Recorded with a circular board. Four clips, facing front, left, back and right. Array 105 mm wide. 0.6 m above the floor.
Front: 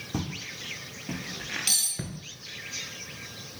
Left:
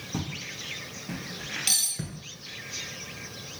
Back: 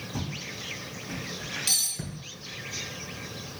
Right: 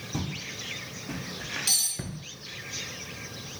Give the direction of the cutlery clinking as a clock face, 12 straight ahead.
10 o'clock.